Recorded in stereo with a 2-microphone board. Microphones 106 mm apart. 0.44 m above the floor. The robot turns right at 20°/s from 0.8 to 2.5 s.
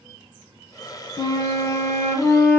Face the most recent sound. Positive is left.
turn(degrees=15)  # may be behind; listen again after turning